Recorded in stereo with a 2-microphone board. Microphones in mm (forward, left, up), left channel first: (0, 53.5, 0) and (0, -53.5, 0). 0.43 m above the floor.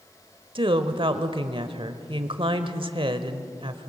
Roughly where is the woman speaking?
Right.